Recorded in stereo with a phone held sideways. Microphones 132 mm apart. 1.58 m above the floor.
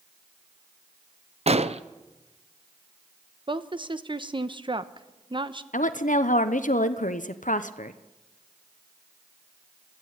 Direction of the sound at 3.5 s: 40° right (ahead or behind).